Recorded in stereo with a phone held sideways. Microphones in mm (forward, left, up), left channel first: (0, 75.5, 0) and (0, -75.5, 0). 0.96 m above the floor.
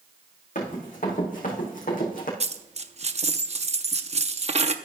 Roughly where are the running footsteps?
Left.